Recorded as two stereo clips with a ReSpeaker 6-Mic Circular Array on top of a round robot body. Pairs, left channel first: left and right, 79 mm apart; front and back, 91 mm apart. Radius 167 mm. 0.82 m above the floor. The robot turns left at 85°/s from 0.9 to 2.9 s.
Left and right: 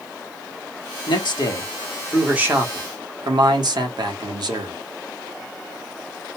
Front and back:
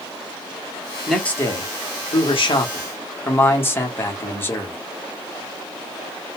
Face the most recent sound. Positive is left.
turn(degrees=-65)